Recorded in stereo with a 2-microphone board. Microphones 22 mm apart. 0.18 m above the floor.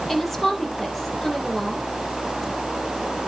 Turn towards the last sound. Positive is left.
turn(degrees=0)  # may be behind; listen again after turning